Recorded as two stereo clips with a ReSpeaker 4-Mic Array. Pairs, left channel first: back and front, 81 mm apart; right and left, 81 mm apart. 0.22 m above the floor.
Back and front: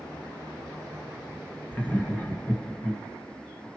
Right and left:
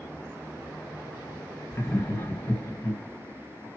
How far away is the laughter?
About 1.3 m.